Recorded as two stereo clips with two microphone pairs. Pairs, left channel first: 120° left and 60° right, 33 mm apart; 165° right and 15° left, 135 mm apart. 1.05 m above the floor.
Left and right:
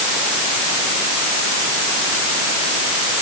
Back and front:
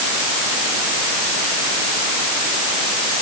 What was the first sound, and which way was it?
Only background noise.